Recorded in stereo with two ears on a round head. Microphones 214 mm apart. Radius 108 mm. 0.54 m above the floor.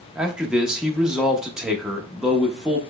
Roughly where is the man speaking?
Centre.